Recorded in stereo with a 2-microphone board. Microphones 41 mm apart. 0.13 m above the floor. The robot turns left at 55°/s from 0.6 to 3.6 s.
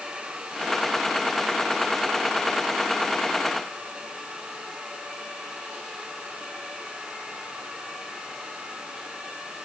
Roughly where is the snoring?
No snoring in this recording.